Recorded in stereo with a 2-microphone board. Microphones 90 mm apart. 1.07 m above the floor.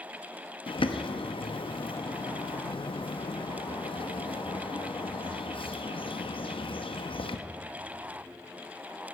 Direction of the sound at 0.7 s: 70° left (ahead or behind).